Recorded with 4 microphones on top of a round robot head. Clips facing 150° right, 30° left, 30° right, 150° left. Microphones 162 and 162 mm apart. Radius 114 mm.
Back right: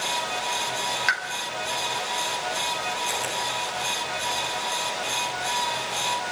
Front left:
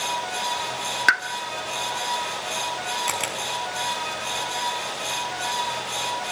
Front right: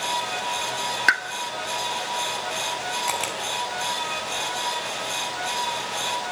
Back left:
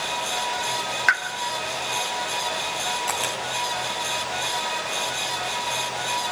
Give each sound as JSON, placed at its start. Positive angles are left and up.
{"t": 1.1, "sound": "a pop", "azimuth_deg": 15, "distance_m": 1.6}
{"t": 3.1, "sound": "a camera shutter", "azimuth_deg": 45, "distance_m": 4.0}